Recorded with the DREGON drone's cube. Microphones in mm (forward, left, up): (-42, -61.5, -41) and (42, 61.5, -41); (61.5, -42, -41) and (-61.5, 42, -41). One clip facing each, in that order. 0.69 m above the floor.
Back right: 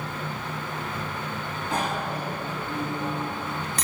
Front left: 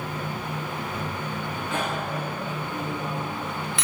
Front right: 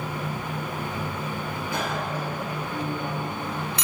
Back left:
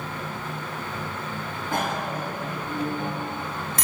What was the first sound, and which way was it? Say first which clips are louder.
A bicycle bell: back right 1 dB, back left 3 dB; 175° right.